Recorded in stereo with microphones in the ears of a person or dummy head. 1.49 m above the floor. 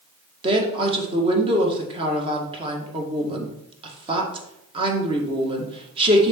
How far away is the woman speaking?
About 1.8 m.